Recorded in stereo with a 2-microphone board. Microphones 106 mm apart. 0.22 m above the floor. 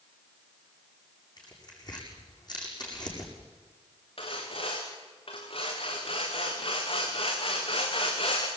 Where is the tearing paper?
40° left (ahead or behind), 8 m.